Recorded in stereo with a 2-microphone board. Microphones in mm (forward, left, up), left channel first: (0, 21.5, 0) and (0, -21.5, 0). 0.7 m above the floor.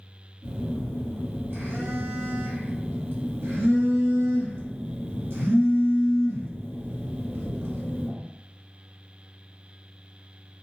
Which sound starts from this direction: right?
A phone buzzing, at 0.4 s.